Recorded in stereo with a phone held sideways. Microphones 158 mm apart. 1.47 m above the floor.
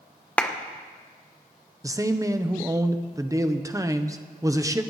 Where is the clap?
10° left (ahead or behind), 0.9 m.